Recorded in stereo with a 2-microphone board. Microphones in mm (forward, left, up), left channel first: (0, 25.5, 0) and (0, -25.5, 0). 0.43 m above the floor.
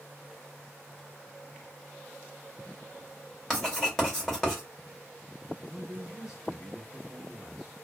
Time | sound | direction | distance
3.5 | writing | 5° left (ahead or behind) | 1.6 m
5.6 | a man speaking | 5° right (ahead or behind) | 0.7 m